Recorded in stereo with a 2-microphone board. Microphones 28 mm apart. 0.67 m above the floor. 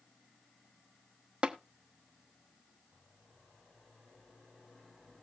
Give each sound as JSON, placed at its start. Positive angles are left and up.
{"t": 1.4, "sound": "tapping", "side_deg": -35, "distance_m": 1.1}